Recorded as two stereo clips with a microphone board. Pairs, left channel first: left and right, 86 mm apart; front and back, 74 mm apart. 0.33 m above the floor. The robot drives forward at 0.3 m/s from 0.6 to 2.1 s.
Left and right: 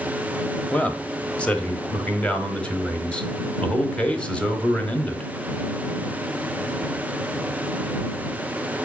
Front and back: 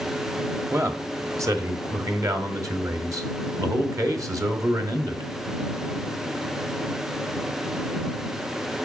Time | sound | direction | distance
0.7 | a man speaking | 155° left | 1.2 m